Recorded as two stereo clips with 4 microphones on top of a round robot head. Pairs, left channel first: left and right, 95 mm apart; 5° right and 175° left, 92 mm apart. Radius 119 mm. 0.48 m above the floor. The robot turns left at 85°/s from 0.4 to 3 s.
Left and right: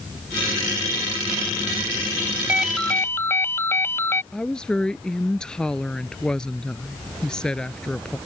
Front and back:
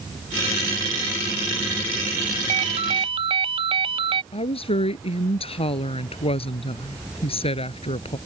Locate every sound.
2.5 s a ringtone: 160° right; by 4.2 s 155° left
4.3 s a woman speaking: 5° left